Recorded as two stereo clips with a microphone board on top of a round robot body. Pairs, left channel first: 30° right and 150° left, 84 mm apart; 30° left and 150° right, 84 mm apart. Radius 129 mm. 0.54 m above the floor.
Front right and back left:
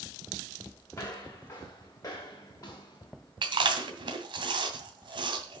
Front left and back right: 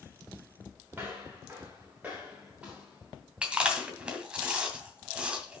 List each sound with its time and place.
0.9 s footsteps: 85° right, 5.5 m; by 3.3 s 70° right, 5 m
3.4 s chewing: 130° left, 2.5 m